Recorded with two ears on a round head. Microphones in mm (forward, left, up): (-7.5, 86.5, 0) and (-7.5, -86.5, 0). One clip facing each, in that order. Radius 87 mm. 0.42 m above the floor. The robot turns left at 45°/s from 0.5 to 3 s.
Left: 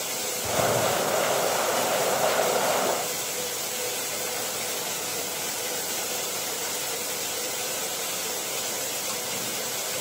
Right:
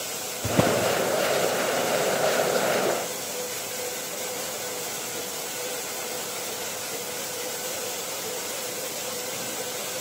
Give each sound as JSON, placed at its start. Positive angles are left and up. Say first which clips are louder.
{"t": 0.4, "sound": "a drawer", "louder": "right 2 dB", "side_deg": -90, "distance_m": 2.0}